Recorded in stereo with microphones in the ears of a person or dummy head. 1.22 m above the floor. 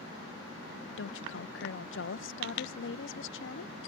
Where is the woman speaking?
60° left (ahead or behind).